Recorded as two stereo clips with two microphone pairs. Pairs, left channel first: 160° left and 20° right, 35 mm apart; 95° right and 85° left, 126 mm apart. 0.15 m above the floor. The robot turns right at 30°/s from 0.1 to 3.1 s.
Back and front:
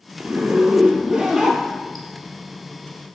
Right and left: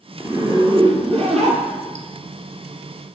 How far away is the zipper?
About 0.8 m.